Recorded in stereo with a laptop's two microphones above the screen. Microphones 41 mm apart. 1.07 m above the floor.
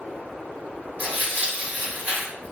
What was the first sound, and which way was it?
Tearing paper, 40° right (ahead or behind).